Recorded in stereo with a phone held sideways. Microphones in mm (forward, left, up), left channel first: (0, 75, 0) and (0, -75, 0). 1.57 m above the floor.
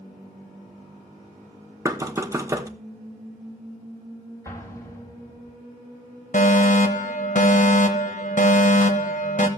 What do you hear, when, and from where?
1.9 s knocking: 20° right (ahead or behind), 0.9 m
4.5 s an explosion: 20° left (ahead or behind), 2.5 m
6.3 s a fire alarm: 55° left (ahead or behind), 1.2 m